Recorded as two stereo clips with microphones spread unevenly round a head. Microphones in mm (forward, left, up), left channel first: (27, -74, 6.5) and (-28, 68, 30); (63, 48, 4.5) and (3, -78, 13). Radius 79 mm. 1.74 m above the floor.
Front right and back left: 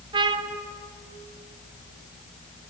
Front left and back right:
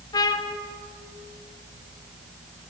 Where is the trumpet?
115° left, 1.3 m.